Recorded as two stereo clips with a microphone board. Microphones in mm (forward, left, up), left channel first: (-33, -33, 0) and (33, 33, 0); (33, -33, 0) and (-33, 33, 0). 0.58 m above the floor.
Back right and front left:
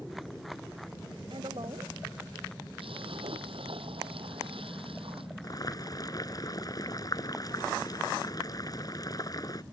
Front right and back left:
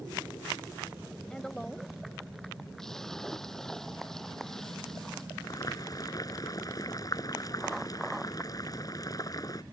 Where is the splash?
40° left.